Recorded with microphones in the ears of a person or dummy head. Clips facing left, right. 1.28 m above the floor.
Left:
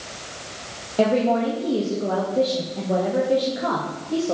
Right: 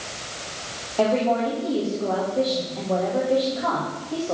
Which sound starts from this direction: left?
A woman speaking, at 1.0 s.